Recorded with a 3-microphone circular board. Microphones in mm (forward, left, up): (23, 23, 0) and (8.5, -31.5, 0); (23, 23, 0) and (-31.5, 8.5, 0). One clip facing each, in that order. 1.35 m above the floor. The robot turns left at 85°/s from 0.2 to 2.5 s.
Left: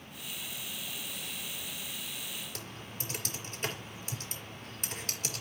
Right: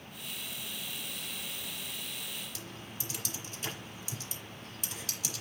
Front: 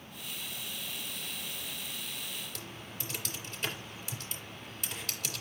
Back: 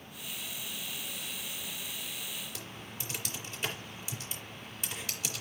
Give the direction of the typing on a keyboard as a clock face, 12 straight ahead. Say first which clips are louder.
Left 1 dB, even; 8 o'clock.